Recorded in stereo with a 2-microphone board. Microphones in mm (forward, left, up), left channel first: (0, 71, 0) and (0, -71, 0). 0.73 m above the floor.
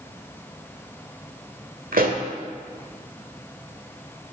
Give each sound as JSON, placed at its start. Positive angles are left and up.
{"t": 1.9, "sound": "a pop", "side_deg": -80, "distance_m": 1.3}